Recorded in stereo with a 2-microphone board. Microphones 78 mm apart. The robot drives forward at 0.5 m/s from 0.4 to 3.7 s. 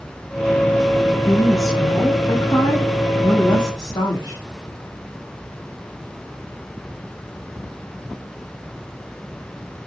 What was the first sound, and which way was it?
A woman speaking, 50° left (ahead or behind).